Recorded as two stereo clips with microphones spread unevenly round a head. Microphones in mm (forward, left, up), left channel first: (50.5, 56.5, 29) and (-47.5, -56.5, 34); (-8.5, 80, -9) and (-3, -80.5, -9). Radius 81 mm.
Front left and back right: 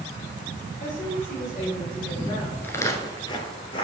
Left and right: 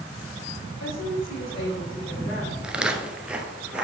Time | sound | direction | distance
0.8 | a woman speaking | 85° left | 3.5 m
2.6 | footsteps | 15° right | 1.0 m